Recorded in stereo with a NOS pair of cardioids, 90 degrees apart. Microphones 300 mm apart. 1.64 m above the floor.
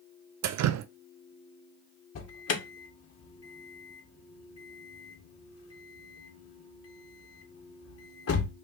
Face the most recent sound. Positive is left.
turn(degrees=55)